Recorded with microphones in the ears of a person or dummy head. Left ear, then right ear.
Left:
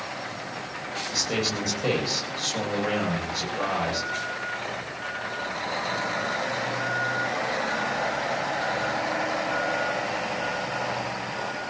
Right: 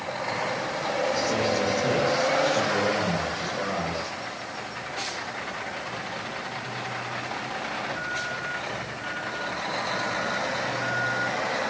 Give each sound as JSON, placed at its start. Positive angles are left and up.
{"t": 1.1, "sound": "a man speaking", "side_deg": 40, "distance_m": 9.0}